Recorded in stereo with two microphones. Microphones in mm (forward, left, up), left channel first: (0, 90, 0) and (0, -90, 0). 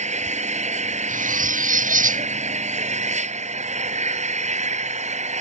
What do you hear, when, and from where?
0.0 s an engine running: 40° right (ahead or behind)
1.1 s cutlery clinking: 45° right (ahead or behind)